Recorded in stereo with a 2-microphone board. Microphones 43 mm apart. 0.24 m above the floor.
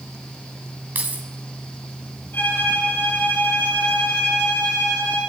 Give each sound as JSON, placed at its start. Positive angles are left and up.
{"t": 0.9, "sound": "keys jangling", "side_deg": -40, "distance_m": 1.0}
{"t": 2.3, "sound": "a violin", "side_deg": 55, "distance_m": 5.0}